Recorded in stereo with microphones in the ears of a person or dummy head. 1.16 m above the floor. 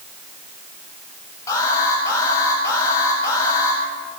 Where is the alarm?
20° left (ahead or behind), 8 m.